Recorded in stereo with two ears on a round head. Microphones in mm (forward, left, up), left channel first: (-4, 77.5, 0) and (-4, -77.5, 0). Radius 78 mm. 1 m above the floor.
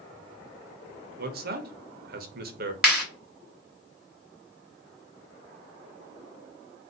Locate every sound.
1.2 s a man speaking: 55° right (ahead or behind), 0.7 m
2.8 s a clap: 5° right (ahead or behind), 1.5 m